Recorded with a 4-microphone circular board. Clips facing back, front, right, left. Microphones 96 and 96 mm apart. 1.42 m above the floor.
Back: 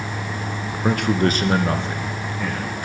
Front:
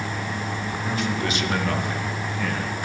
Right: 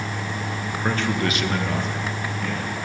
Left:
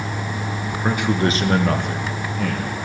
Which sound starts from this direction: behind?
A man speaking, at 0.8 s.